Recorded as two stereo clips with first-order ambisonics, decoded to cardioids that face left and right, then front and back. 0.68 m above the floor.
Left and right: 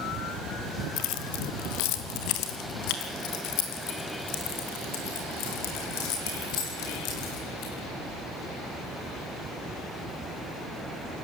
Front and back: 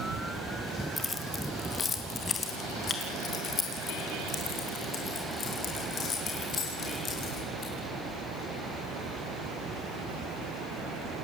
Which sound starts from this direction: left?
Keys jangling, at 1.0 s.